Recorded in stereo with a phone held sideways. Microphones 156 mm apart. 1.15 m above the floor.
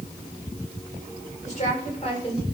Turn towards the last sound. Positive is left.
turn(degrees=35)  # may be behind; listen again after turning